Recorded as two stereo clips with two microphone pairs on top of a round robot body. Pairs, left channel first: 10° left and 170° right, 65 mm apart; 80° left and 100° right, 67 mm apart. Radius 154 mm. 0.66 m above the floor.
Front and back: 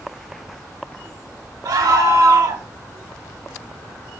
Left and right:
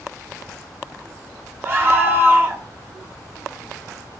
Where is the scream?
155° right, 1.2 m.